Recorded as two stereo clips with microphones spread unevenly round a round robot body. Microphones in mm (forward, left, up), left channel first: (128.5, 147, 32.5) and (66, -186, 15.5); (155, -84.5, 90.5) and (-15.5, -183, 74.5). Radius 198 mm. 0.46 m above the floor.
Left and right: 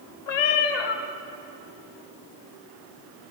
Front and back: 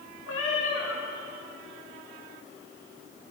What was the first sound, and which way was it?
A cat meowing, 75° left.